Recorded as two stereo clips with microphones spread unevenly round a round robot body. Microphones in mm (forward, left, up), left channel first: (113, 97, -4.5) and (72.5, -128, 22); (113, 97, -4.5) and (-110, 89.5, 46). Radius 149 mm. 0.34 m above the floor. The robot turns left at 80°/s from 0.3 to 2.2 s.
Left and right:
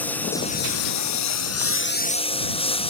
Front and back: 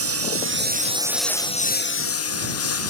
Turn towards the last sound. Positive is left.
turn(degrees=15)